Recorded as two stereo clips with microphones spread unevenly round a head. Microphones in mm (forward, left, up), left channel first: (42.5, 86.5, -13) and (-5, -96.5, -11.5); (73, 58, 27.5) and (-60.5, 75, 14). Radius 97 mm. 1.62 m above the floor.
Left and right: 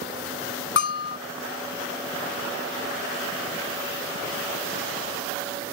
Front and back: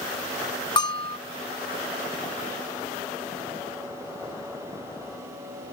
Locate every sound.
0.8 s a bell: 45° left